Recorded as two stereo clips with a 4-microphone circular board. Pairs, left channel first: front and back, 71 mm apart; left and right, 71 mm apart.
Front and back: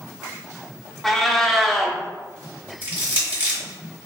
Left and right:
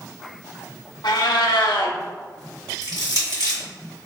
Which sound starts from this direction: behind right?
Crushing, at 2.8 s.